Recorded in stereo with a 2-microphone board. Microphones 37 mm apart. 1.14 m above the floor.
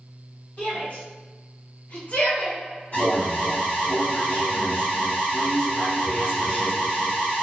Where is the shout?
55° left (ahead or behind), 2.0 m; by 2.6 s 30° left (ahead or behind), 0.9 m.